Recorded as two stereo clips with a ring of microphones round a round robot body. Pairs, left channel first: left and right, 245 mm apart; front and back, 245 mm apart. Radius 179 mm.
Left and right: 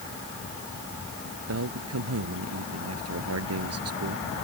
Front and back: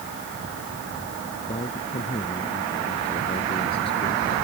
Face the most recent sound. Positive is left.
turn(degrees=-75)